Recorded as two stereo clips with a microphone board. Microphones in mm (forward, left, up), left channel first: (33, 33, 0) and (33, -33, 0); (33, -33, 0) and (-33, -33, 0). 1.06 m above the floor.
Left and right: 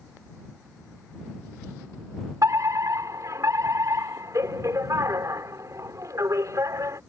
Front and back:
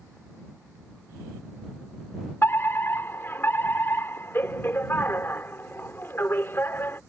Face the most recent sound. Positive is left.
turn(degrees=-55)